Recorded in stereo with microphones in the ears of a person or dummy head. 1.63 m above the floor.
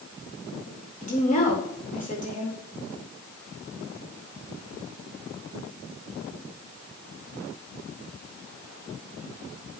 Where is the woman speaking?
50° left (ahead or behind), 3.5 m.